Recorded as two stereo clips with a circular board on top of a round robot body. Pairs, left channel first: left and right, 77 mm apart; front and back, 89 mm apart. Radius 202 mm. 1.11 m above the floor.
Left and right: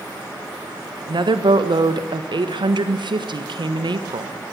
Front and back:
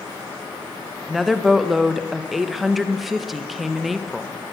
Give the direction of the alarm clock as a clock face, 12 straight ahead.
I don't hear an alarm clock.